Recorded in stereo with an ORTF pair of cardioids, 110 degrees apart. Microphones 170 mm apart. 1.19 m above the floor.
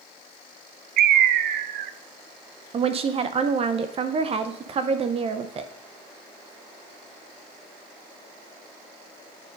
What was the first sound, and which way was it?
A bird, 70° right.